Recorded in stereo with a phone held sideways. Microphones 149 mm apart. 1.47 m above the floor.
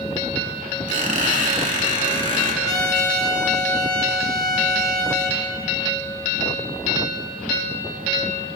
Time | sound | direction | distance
0.9 | a squeak | 55° right (ahead or behind) | 1.9 m
2.6 | a trumpet | 25° left (ahead or behind) | 1.3 m